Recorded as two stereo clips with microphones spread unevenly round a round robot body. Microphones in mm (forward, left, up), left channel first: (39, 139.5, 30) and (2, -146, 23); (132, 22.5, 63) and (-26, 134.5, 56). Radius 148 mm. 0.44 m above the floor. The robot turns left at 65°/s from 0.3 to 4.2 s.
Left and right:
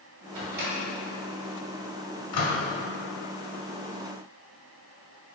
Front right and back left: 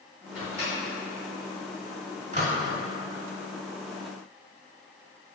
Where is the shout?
No shout in this recording.